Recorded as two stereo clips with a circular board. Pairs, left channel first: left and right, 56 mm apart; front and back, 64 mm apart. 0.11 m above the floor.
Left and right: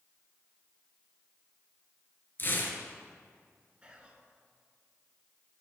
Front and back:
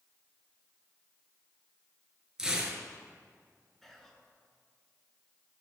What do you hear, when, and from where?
2.4 s tearing paper: 105° left, 1.0 m
3.8 s whispering: 75° right, 1.1 m